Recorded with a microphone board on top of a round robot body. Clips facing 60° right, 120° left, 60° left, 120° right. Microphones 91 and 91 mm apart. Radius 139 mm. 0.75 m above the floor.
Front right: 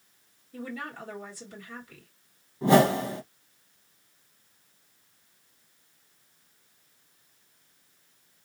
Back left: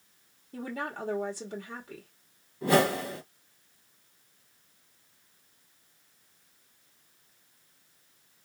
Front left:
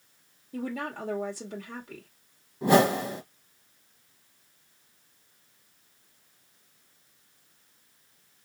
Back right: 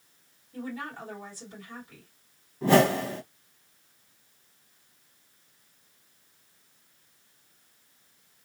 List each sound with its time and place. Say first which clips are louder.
0.5 s a woman speaking: back left 2 dB, front left 3 dB; 80° left, 1.6 m
2.6 s a whoosh: front right 4 dB, even; 10° right, 1.2 m